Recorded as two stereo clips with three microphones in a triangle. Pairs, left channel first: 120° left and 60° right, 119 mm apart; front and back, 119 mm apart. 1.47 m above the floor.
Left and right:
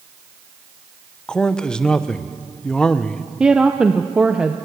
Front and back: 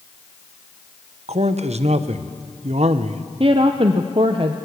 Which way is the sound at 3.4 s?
140° right.